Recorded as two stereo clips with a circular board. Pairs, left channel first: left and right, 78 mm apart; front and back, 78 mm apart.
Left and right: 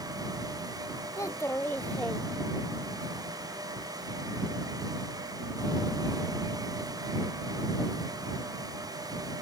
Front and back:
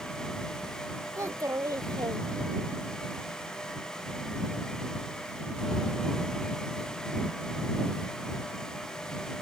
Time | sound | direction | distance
1.2 | a child speaking | 135° left | ?